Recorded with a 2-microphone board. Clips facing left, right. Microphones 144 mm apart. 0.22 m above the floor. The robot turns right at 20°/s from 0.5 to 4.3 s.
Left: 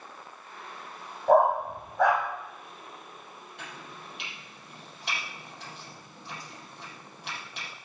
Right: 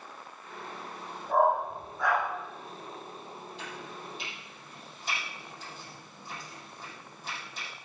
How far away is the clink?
I don't hear a clink.